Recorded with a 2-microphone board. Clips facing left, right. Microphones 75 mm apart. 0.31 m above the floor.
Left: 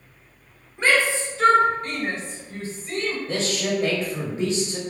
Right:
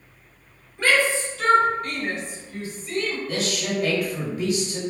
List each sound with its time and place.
0.8 s a shout: 25° left (ahead or behind), 1.7 m; by 3.2 s 35° left (ahead or behind), 1.5 m
3.3 s a man speaking: 30° left (ahead or behind), 1.1 m